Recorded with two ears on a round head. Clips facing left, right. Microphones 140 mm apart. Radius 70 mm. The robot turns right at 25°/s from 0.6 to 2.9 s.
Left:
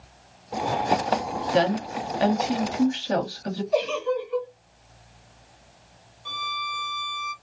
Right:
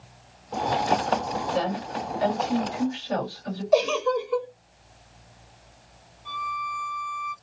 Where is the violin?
50° left (ahead or behind), 0.6 m.